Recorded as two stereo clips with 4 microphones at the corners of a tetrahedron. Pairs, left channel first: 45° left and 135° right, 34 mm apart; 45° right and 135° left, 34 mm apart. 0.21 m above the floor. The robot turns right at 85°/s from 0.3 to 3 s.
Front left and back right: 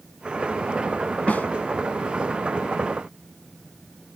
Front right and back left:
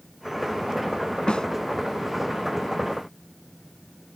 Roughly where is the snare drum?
Ahead.